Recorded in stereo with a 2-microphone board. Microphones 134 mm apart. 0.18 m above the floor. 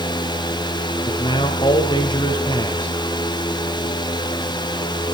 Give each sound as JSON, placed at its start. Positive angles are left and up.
{"t": 1.1, "sound": "a man speaking", "side_deg": 35, "distance_m": 5.0}